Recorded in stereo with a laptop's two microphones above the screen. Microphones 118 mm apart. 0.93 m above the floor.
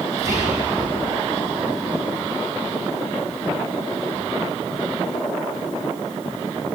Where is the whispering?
25° right (ahead or behind), 8 m.